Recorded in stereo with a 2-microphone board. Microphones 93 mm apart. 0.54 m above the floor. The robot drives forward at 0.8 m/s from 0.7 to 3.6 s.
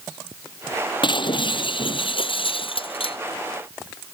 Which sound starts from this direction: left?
Breaking glass, at 1.0 s.